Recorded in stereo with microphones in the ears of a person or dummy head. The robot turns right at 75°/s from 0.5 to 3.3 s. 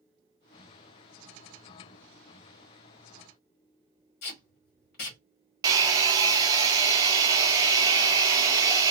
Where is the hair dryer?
20° right (ahead or behind), 0.6 m.